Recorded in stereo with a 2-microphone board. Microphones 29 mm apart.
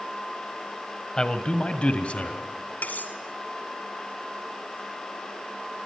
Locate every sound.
1.2 s a man speaking: 25° left (ahead or behind), 1.4 m; by 2.4 s 50° left (ahead or behind), 1.9 m
2.8 s cutlery clinking: 65° left (ahead or behind), 1.5 m